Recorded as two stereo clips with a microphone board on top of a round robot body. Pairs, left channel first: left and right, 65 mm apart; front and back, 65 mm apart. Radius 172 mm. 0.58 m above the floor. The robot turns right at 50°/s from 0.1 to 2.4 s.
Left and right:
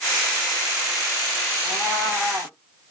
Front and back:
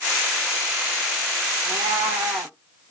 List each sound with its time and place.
1.6 s a cat meowing: 165° left, 0.5 m; by 2.5 s 155° right, 0.5 m